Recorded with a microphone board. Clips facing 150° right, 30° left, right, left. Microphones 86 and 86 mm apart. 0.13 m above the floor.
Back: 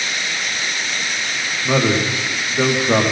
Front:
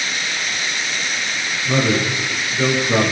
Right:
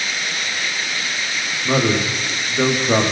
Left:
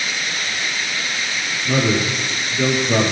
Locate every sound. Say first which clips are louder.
1.6 s a man speaking: back 1 dB, right 1 dB; 120° right, 8.5 m